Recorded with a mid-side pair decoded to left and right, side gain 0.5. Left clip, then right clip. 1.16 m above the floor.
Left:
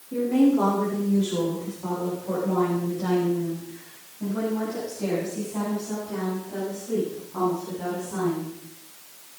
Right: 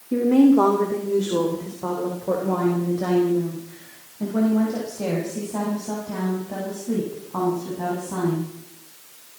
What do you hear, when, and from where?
0.1 s a woman speaking: 55° right, 3 m; by 8.5 s 60° right, 8 m